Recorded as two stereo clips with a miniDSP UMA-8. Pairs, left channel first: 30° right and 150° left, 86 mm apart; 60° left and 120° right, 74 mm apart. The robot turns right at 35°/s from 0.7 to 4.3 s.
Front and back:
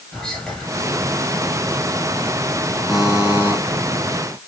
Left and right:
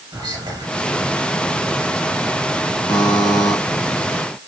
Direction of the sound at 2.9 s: 65° left.